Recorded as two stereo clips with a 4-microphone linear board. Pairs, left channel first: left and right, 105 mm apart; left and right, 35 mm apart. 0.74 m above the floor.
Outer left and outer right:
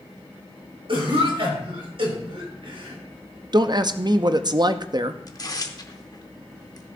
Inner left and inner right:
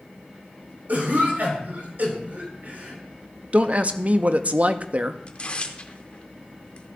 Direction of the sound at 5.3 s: 35° left (ahead or behind).